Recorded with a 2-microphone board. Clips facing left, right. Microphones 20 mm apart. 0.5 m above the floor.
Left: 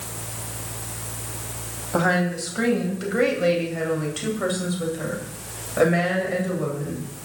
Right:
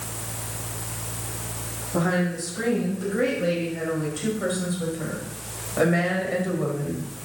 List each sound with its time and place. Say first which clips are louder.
1.9 s a woman speaking: left 3 dB; 45° left (ahead or behind), 3 m; by 7.1 s 5° right (ahead or behind), 3 m